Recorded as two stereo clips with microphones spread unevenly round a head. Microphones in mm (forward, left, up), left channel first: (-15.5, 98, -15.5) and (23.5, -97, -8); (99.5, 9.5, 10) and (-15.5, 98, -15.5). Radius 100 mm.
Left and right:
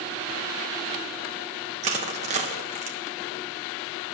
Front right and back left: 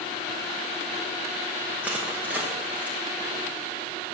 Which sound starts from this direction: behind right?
Crushing, at 1.8 s.